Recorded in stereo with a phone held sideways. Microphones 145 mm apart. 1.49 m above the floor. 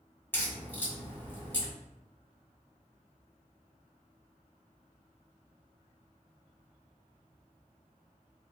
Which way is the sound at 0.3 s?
15° left (ahead or behind).